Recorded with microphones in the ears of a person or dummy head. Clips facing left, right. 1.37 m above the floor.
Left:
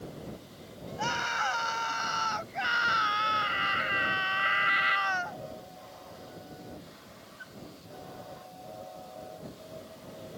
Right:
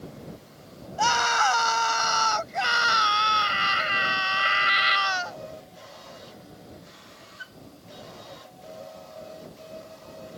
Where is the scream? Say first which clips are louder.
Right 10 dB; 75° right (ahead or behind); by 5.4 s 55° right (ahead or behind).